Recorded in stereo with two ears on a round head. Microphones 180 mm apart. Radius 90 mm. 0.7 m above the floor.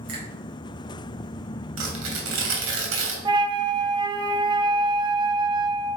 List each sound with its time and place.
0.1 s a finger snap: 55° right (ahead or behind), 4 m
1.8 s tearing paper: 75° right (ahead or behind), 2.5 m
3.2 s a flute: 25° right (ahead or behind), 0.8 m